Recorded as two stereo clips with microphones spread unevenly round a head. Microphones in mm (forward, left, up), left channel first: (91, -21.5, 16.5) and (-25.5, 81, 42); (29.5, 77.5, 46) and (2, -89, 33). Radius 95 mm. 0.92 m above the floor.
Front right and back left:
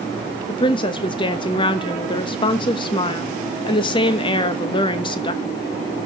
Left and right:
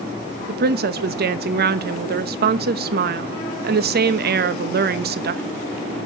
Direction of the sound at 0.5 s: 95° right.